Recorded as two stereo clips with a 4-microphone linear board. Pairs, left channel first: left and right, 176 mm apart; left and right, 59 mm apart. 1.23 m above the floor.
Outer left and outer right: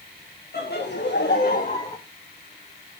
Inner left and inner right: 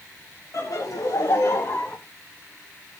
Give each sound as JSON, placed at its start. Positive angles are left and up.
{"t": 0.5, "sound": "laughter", "side_deg": 65, "distance_m": 1.7}